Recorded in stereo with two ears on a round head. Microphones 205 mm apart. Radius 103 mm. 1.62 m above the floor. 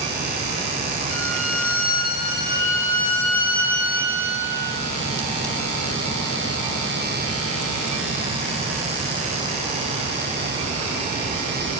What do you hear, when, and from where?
1.1 s a violin: 60° left (ahead or behind), 7 m